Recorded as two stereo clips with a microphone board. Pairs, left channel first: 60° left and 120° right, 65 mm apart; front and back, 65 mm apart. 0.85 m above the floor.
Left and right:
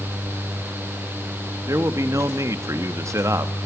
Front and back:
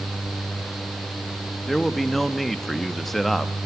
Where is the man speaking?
85° right, 1.4 m.